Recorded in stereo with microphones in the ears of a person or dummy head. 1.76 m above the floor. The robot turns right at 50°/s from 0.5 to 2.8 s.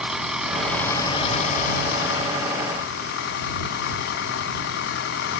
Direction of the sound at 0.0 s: 5° right.